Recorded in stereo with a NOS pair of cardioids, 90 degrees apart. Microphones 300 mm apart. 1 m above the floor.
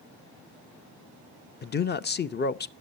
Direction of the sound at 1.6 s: 30° left.